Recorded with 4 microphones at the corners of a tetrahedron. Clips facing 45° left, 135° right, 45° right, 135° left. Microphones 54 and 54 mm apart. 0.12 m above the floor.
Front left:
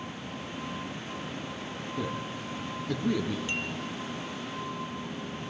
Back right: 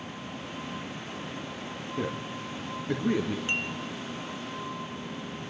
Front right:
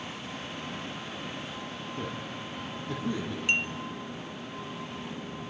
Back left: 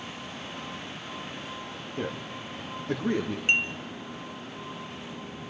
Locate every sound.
2.0 s a man speaking: straight behind, 2.5 m; by 3.4 s 165° left, 3 m
3.5 s dishes clattering: 175° right, 1.2 m